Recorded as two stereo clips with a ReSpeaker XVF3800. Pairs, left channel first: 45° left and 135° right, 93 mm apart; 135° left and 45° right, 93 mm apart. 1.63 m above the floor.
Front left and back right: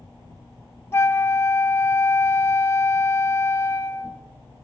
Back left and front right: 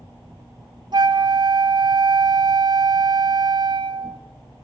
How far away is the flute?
About 0.6 m.